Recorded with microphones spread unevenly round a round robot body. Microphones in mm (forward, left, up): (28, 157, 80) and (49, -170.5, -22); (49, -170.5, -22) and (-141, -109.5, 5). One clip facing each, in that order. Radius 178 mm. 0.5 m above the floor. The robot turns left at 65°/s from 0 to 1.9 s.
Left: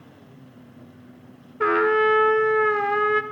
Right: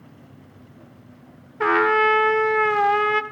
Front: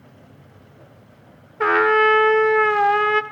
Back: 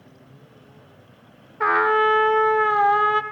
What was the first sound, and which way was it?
A trumpet, 40° right.